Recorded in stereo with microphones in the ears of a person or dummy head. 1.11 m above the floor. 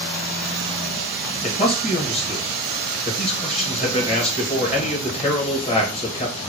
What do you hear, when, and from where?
1.4 s a man speaking: 35° left (ahead or behind), 1.0 m